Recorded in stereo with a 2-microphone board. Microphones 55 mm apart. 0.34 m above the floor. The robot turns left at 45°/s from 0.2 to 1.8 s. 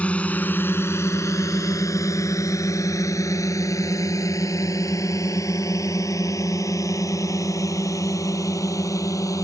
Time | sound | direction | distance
0.0 | a drone | 25° left (ahead or behind) | ?